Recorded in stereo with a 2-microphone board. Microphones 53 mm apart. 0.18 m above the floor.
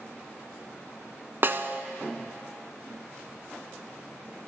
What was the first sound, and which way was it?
A snare drum, 50° right (ahead or behind).